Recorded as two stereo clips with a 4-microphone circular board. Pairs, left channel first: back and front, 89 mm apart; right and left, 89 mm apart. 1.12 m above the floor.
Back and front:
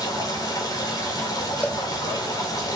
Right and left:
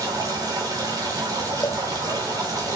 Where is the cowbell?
110° right, 1.4 m.